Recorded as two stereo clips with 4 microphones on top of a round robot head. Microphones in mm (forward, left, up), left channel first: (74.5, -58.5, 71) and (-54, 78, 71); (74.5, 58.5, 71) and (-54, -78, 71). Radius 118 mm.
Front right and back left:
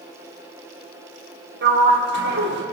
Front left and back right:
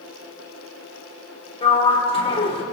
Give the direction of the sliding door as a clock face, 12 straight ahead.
8 o'clock.